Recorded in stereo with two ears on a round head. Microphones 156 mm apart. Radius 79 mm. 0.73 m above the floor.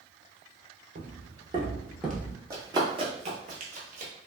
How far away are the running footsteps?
About 0.9 m.